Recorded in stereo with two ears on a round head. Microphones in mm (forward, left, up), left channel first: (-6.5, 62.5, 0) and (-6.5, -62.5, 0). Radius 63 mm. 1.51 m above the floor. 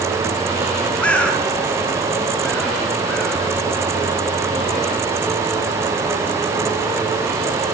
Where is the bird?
10° left (ahead or behind), 3.5 m.